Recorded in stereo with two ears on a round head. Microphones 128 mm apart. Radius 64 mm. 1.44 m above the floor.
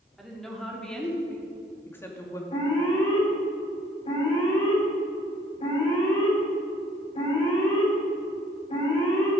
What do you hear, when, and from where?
0.2 s a woman speaking: centre (ahead or behind), 3 m; by 2.4 s 20° left (ahead or behind), 2 m
2.5 s an alarm: 40° left (ahead or behind), 5 m